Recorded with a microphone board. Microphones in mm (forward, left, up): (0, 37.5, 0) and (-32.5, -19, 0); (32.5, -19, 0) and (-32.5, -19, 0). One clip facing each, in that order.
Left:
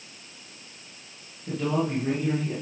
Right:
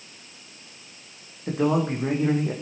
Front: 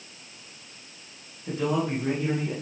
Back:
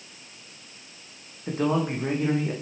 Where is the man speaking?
125° right, 8.5 m.